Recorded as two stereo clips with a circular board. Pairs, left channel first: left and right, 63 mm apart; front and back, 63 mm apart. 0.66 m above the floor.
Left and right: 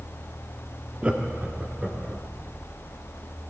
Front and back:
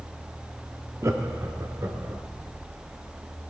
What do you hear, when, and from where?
1.0 s laughter: 160° right, 1.0 m